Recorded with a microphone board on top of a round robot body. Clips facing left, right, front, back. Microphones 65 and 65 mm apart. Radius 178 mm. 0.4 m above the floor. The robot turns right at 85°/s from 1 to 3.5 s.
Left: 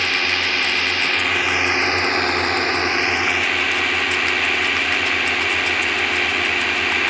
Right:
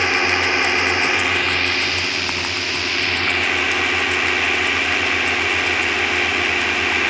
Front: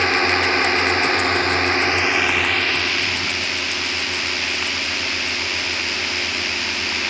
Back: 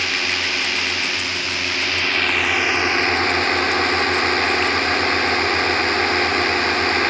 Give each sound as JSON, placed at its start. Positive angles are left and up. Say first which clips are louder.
{"t": 0.0, "sound": "a drone", "louder": "right 3 dB, front 5 dB", "azimuth_deg": -30}